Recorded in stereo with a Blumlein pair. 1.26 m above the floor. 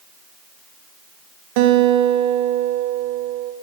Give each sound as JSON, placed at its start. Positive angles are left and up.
{"t": 1.6, "sound": "a guitar", "azimuth_deg": -45, "distance_m": 1.0}